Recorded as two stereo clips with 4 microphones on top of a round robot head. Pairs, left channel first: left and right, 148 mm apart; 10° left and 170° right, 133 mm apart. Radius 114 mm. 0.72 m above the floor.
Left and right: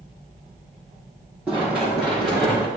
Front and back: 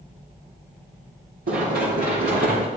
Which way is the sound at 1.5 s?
170° right.